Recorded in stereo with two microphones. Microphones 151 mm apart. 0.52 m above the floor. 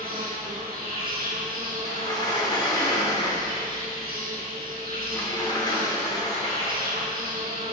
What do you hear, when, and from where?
0.0 s an insect: 80° right, 3 m
1.9 s a sliding door: 25° left (ahead or behind), 1.6 m